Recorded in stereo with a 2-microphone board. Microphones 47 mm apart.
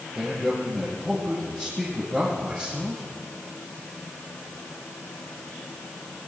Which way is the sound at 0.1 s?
Centre (ahead or behind).